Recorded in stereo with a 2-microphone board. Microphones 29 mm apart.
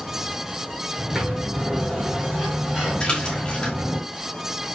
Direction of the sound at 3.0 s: 30° left (ahead or behind).